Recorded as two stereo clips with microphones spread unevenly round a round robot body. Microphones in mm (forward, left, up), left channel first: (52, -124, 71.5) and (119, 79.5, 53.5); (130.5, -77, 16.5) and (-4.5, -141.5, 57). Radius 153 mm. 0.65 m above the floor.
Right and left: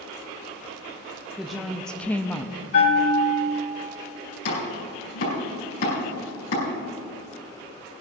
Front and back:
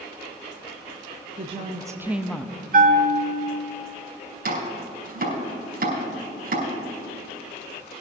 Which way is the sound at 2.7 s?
140° right.